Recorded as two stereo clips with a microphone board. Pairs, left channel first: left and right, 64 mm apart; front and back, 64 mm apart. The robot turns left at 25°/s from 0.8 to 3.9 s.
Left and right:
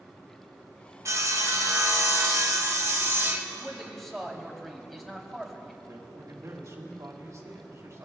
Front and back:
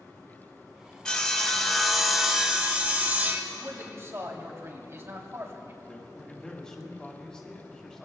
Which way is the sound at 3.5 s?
170° right.